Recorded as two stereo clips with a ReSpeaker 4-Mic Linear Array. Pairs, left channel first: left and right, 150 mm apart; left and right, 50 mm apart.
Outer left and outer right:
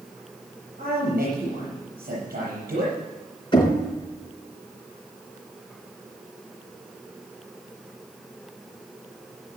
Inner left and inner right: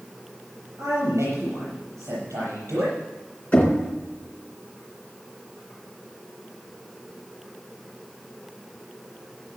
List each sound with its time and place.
0.8 s a man speaking: 80° right, 7.5 m
3.5 s knocking: 35° left (ahead or behind), 3.5 m